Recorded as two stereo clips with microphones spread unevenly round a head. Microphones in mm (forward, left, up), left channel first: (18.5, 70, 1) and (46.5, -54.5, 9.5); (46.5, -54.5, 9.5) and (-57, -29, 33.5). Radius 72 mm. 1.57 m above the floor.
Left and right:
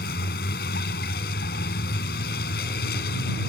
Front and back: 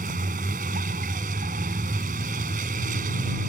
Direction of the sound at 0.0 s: 135° left.